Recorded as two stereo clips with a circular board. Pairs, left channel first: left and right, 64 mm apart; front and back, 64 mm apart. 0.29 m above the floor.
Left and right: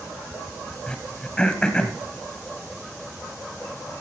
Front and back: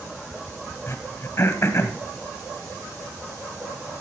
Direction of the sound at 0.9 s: 20° left.